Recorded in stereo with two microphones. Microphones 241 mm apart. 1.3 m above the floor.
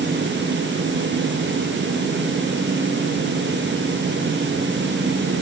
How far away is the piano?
I don't hear a piano.